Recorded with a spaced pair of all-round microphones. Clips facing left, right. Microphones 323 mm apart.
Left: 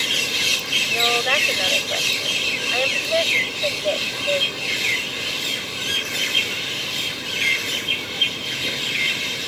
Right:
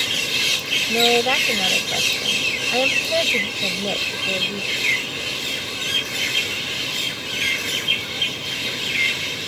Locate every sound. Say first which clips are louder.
0.9 s a woman speaking: right 6 dB; 55° right (ahead or behind)